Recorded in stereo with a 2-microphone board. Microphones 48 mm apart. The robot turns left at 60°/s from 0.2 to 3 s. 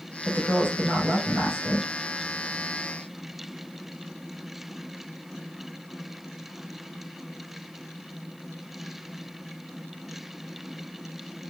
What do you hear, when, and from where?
0.2 s a woman speaking: 115° right, 1.7 m; by 1.9 s 145° left, 1.7 m